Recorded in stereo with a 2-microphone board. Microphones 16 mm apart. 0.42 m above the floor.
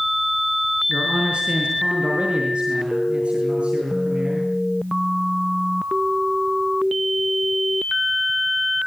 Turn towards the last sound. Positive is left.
turn(degrees=-80)